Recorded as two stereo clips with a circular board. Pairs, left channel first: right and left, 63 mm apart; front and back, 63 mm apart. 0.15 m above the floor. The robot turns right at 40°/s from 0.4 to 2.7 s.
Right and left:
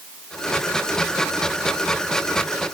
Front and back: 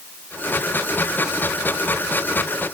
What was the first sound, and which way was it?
Only background noise.